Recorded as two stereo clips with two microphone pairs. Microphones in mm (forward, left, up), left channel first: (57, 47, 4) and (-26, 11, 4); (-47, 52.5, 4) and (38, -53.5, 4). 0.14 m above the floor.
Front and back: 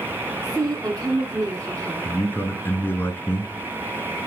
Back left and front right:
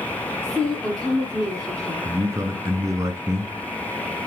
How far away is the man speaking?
About 1.5 m.